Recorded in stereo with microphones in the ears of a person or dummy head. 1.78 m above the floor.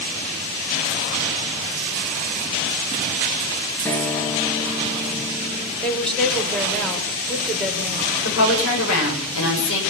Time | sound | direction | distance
3.9 | a guitar | 10° left (ahead or behind) | 2.5 m
5.8 | a woman speaking | 5° left (ahead or behind) | 7 m
8.2 | a woman speaking | 80° left | 9 m